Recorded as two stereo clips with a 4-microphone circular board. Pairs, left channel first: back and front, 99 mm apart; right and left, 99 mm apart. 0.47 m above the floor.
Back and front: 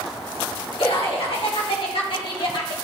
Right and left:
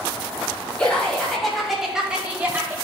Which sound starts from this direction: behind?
Laughter, at 0.8 s.